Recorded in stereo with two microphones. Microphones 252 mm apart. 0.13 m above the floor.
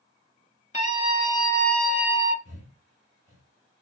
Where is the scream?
30° left (ahead or behind), 1.8 m; by 2.4 s 20° right (ahead or behind), 1.3 m.